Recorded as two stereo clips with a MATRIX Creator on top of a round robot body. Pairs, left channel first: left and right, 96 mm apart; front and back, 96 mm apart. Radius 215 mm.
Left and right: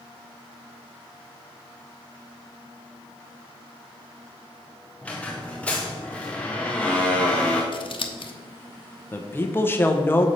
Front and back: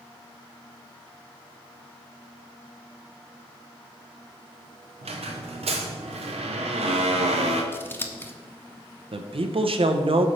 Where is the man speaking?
155° left, 0.8 m.